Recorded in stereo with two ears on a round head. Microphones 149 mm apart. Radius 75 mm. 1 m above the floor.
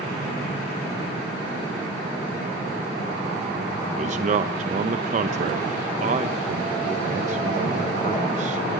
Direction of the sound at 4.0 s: 45° right (ahead or behind).